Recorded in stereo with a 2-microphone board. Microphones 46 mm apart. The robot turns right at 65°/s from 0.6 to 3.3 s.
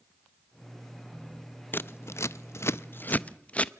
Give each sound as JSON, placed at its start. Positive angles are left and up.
{"t": 1.7, "sound": "scissors", "side_deg": 50, "distance_m": 0.5}